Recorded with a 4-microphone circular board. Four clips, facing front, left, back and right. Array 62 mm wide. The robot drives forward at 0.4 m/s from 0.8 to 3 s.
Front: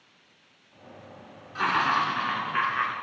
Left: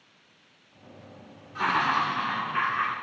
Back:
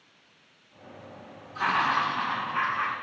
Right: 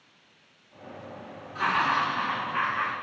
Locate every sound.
1.6 s laughter: 5° left, 1.5 m